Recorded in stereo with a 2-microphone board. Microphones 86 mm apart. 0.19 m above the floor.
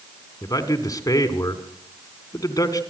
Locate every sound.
0.4 s a man speaking: 45° left (ahead or behind), 1.9 m